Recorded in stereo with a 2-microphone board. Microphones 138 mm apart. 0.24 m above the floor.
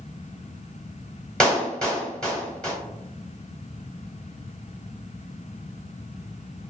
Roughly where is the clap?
Centre.